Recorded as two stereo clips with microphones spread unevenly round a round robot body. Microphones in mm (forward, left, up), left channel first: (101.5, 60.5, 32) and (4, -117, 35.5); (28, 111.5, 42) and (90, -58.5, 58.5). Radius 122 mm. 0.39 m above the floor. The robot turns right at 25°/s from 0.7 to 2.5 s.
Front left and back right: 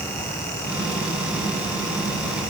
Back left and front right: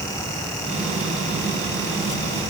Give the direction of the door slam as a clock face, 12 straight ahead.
No door slam in this recording.